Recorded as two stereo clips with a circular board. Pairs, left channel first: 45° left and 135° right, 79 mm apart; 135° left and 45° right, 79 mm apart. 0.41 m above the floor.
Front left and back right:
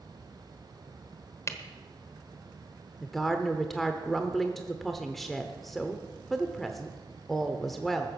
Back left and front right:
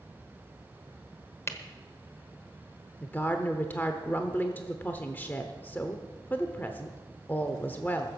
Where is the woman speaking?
125° left, 0.9 m.